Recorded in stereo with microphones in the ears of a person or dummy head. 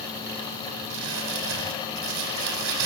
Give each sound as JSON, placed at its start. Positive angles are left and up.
{"t": 0.9, "sound": "crumpling", "side_deg": -70, "distance_m": 9.0}